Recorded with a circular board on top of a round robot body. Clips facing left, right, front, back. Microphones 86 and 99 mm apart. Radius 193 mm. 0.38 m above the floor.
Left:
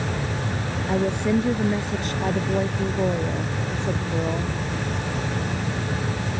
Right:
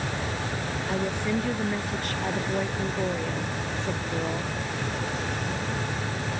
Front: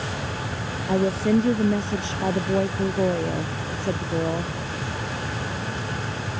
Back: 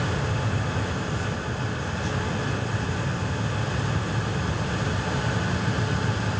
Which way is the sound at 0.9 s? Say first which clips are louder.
Left 7 dB, front 9 dB; 25° left.